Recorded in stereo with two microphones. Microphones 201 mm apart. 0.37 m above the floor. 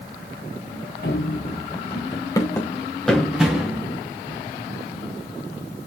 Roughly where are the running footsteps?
Left.